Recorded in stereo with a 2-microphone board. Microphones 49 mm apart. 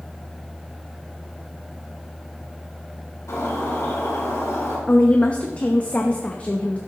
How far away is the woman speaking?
About 0.8 m.